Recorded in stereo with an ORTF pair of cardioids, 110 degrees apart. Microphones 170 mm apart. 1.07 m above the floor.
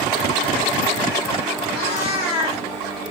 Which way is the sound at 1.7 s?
65° left.